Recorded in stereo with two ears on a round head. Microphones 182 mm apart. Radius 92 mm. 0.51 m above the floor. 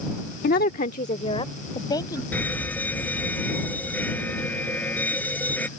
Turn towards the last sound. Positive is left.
turn(degrees=10)  # may be behind; listen again after turning